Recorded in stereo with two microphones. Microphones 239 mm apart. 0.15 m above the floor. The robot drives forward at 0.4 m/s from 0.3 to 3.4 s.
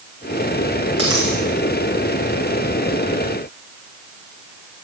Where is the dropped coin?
80° right, 5.5 m.